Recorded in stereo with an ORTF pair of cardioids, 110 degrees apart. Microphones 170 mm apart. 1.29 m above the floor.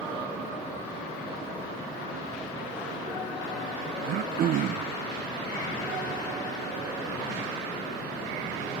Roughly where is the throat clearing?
Ahead right.